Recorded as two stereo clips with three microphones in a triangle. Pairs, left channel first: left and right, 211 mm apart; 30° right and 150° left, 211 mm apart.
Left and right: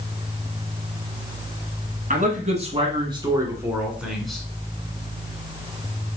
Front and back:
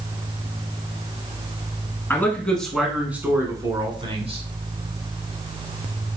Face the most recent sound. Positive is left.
turn(degrees=175)